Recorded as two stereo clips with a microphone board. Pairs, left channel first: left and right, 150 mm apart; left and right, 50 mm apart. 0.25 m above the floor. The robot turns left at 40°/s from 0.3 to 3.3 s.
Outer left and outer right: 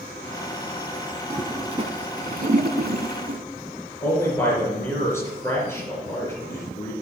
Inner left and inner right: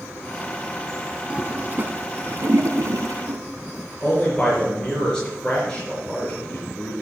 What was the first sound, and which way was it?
A toilet flushing, 25° right (ahead or behind).